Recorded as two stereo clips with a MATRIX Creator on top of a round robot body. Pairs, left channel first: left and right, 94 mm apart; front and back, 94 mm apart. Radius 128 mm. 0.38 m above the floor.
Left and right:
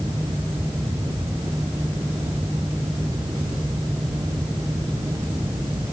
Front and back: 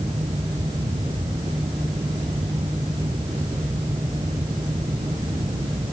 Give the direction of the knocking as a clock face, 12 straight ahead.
I don't hear knocking.